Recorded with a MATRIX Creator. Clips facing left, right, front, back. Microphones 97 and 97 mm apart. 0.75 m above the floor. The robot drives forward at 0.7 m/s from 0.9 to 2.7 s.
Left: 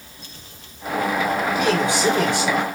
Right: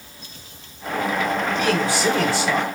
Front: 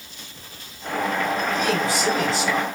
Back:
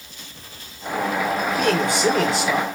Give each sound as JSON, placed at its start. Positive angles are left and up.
{"t": 1.6, "sound": "a man speaking", "azimuth_deg": 155, "distance_m": 1.4}